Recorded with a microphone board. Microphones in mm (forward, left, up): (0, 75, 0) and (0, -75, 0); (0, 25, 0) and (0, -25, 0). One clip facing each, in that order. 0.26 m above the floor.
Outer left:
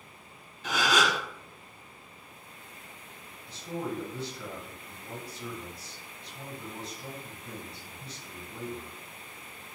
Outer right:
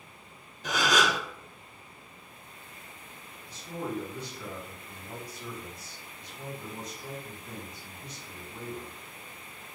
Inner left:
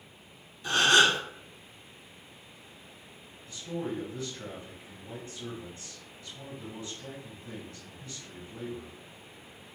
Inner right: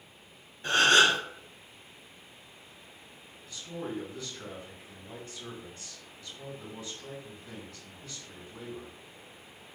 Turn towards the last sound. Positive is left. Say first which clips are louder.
# outer left 1 dB, inner left 3 dB
turn(degrees=30)  # may be behind; listen again after turning